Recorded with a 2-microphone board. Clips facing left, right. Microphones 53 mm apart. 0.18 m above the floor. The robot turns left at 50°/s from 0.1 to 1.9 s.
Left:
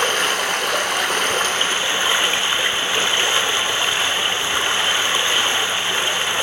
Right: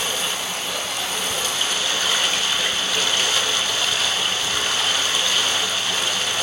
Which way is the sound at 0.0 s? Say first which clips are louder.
Left 7 dB; 120° left.